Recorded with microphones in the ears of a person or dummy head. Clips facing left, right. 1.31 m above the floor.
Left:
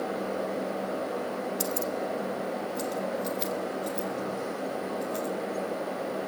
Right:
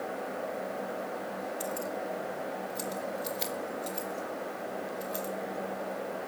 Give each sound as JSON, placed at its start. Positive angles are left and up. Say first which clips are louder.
{"t": 1.6, "sound": "keys jangling", "louder": "left 4 dB", "side_deg": 40, "distance_m": 0.8}